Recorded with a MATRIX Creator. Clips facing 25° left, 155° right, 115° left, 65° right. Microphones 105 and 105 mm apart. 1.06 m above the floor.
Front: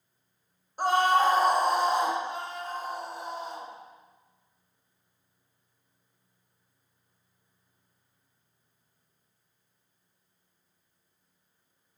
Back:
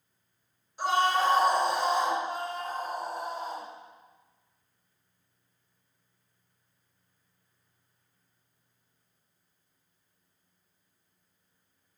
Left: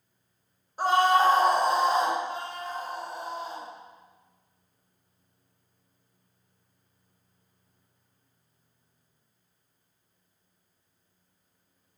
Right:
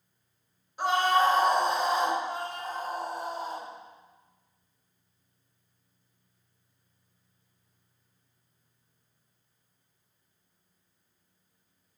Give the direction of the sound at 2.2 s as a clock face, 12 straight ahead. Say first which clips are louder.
Back 2 dB, even; 4 o'clock.